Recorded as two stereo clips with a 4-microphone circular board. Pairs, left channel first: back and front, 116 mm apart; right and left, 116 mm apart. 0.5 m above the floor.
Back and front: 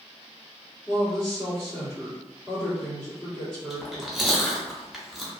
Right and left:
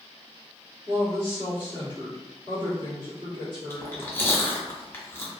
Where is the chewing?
90° right, 0.7 m.